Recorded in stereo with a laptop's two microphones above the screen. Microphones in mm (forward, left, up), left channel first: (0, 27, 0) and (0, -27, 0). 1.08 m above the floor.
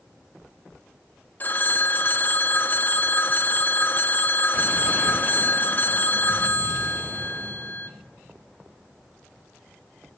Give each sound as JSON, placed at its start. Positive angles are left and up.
{"t": 1.4, "sound": "a phone ringing", "side_deg": 35, "distance_m": 1.5}